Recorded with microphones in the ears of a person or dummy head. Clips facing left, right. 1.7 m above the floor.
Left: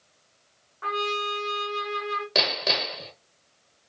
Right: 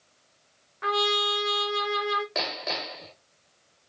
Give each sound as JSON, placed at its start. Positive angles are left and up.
{"t": 0.8, "sound": "a trumpet", "side_deg": -35, "distance_m": 1.2}
{"t": 2.4, "sound": "hammering", "side_deg": 50, "distance_m": 1.4}